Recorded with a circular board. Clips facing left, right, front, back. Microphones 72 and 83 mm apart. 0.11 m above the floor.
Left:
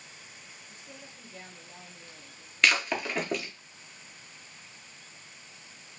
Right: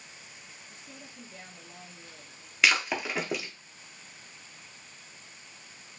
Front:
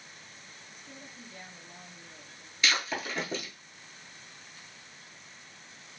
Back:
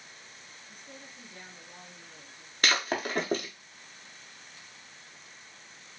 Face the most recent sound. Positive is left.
turn(degrees=-175)